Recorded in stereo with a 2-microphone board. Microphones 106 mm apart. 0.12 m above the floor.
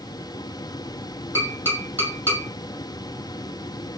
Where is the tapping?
20° left (ahead or behind), 1.5 m.